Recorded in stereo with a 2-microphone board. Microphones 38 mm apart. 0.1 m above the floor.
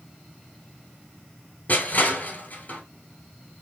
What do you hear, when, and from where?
1.7 s crushing: 45° left (ahead or behind), 1.0 m